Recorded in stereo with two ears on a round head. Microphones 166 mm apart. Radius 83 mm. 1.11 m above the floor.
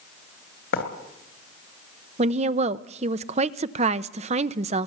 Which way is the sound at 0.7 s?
65° left (ahead or behind).